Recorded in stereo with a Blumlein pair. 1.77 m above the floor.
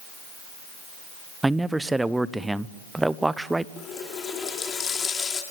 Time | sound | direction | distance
1.4 | a man speaking | 5° right | 0.7 m
3.8 | a running tap | 20° left | 3 m